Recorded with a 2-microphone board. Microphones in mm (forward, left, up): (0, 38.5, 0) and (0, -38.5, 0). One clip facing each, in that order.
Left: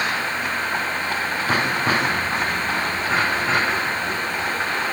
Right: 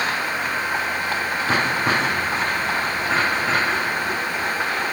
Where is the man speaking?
No man speaking in this recording.